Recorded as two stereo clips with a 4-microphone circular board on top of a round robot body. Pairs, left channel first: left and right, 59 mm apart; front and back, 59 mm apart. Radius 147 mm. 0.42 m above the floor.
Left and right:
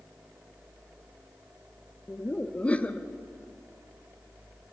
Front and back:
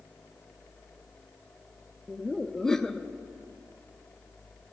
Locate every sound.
2.1 s laughter: 65° left, 0.8 m